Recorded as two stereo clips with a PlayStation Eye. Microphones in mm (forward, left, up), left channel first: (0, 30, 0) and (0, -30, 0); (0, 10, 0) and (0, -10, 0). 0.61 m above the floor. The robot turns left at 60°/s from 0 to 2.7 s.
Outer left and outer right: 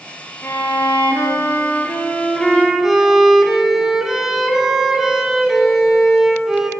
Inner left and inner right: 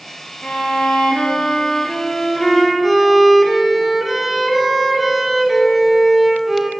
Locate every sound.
0.4 s a violin: 130° left, 0.8 m; by 6.7 s 5° right, 0.8 m